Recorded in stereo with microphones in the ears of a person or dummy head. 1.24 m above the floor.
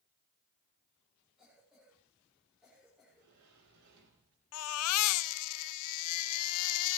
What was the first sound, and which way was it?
A cough, centre (ahead or behind).